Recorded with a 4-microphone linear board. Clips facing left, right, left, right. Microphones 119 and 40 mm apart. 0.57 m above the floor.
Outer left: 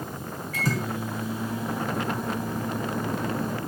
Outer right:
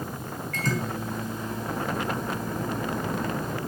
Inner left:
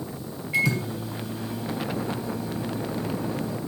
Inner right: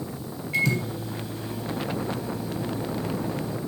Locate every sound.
0.5 s a microwave: 5° left (ahead or behind), 3 m